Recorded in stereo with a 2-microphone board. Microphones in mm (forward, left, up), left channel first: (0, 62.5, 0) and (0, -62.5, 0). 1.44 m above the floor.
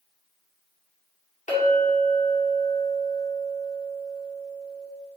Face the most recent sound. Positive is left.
turn(degrees=70)  # may be behind; listen again after turning